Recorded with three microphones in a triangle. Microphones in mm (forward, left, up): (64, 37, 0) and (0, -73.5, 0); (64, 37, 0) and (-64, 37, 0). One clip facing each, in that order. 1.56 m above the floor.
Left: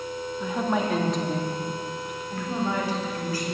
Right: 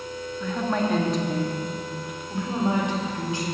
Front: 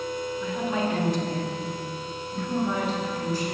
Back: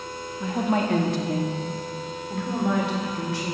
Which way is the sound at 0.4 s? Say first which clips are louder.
Even, back 5 dB; 135° left.